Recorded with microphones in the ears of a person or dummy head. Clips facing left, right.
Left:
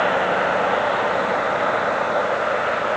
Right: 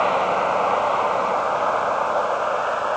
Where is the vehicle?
15° left (ahead or behind); by 3.0 s 30° left (ahead or behind).